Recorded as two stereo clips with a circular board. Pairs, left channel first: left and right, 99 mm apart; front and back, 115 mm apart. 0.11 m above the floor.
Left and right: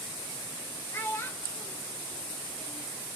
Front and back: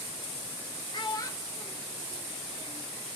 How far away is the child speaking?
About 1.0 m.